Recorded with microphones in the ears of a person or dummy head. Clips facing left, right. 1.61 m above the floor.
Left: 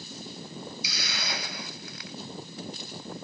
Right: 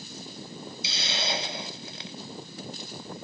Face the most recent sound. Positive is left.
turn(degrees=-25)  # may be behind; listen again after turning